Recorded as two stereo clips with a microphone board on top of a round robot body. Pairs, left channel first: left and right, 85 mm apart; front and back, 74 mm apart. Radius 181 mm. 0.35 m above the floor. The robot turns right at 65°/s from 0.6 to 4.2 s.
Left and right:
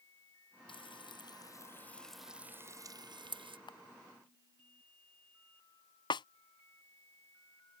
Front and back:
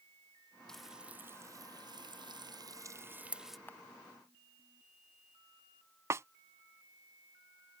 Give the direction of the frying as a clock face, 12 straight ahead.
9 o'clock.